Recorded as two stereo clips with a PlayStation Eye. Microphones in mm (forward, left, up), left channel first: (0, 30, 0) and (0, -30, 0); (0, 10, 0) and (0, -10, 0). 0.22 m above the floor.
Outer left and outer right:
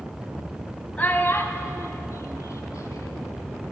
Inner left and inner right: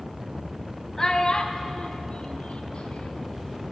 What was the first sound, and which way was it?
A child speaking, 25° left (ahead or behind).